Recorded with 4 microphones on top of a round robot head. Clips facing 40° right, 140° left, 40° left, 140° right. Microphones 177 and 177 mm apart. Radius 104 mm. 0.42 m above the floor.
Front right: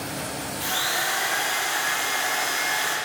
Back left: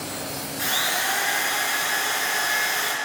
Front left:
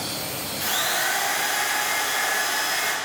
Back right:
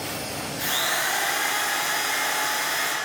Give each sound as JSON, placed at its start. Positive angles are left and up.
{"t": 0.6, "sound": "a drill", "azimuth_deg": 140, "distance_m": 3.5}